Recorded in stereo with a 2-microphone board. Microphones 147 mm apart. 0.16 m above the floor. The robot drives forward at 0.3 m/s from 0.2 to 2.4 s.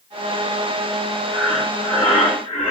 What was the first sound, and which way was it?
Breathing, 20° left (ahead or behind).